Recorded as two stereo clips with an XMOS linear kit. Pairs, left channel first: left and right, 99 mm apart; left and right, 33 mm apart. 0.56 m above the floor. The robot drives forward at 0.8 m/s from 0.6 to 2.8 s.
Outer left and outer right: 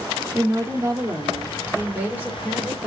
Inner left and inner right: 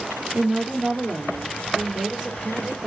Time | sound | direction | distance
0.3 | a woman speaking | 30° right (ahead or behind) | 1.0 m